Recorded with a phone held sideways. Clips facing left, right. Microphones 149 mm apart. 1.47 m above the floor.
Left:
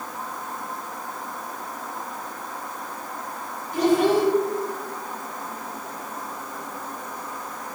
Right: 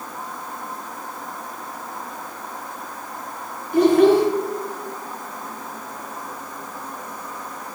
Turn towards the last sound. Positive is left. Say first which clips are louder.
# right 5 dB
turn(degrees=-60)  # may be behind; listen again after turning